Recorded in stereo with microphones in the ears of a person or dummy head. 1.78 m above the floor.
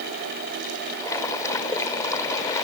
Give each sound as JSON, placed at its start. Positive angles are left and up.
{"t": 1.0, "sound": "boiling", "side_deg": 15}